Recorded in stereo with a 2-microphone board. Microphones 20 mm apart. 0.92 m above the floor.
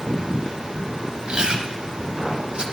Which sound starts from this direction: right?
Chewing, at 1.3 s.